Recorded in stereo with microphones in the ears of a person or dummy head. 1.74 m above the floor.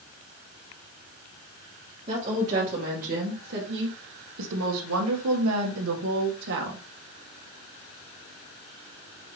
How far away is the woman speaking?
About 3 m.